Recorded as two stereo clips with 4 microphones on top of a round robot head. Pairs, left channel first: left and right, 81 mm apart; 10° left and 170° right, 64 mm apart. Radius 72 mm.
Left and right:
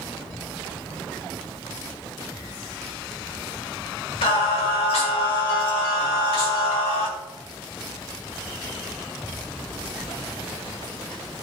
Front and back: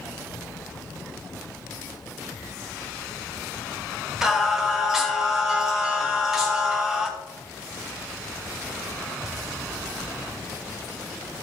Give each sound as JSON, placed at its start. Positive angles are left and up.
{"t": 4.2, "sound": "singing", "azimuth_deg": 105, "distance_m": 2.5}